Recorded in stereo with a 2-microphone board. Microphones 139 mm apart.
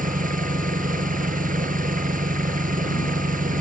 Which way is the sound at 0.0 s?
80° right.